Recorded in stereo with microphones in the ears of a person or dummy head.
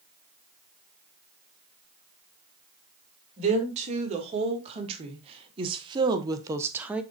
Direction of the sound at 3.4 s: 35° right (ahead or behind).